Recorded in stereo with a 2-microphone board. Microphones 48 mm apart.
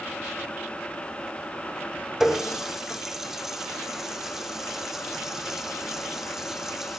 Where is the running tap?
10° right (ahead or behind), 2.5 m.